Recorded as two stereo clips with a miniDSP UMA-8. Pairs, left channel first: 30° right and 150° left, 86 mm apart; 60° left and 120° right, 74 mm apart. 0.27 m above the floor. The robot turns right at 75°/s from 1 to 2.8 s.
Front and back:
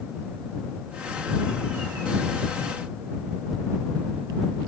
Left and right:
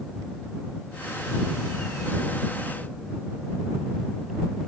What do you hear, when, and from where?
Only background noise.